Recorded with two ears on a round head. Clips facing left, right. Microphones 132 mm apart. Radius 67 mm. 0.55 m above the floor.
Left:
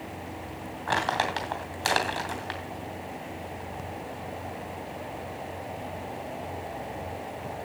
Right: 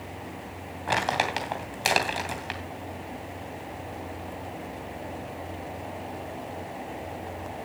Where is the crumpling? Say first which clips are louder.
Right 1 dB; 20° right (ahead or behind), 2.5 m.